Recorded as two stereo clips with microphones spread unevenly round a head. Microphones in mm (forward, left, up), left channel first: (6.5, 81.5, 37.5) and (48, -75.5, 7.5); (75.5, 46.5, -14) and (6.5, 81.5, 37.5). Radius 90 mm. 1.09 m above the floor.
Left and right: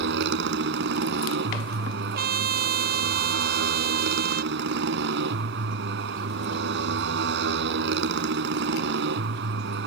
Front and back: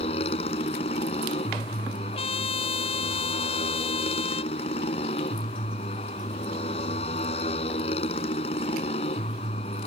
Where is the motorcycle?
65° right.